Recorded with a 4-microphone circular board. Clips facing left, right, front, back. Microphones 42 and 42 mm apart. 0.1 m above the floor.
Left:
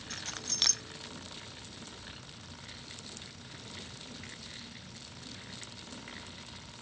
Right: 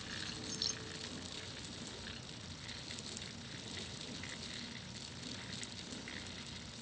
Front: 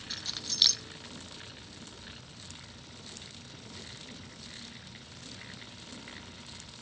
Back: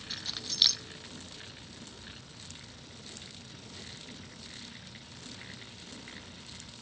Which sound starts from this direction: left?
Keys jangling, at 0.1 s.